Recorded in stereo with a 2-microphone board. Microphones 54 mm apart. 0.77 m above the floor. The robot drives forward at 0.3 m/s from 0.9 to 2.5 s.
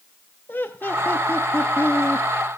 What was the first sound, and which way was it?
Laughter, 35° left (ahead or behind).